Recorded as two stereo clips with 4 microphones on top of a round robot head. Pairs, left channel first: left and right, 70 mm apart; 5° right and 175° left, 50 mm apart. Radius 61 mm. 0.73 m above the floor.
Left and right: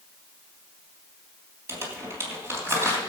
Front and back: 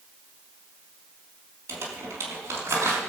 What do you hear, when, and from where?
1.7 s crumpling: 140° right, 3 m